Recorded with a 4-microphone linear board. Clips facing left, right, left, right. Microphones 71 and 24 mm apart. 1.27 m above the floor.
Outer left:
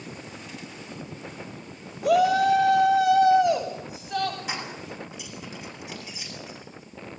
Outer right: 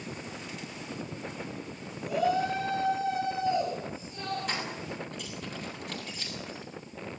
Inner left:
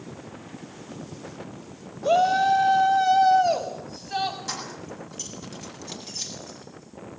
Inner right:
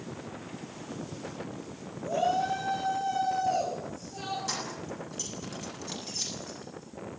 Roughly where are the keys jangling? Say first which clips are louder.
Outer left 1 dB, inner left 1 dB; centre.